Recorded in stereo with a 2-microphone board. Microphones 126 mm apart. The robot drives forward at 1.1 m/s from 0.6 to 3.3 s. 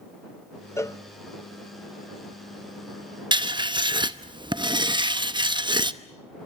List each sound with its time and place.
0.8 s a cowbell: 25° left (ahead or behind), 0.8 m
3.3 s writing: 40° right (ahead or behind), 0.9 m